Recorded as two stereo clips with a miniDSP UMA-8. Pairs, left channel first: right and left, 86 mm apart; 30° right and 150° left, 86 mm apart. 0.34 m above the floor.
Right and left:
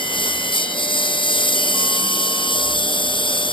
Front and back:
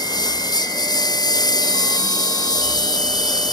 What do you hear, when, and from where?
0.0 s a lawn mower: 70° right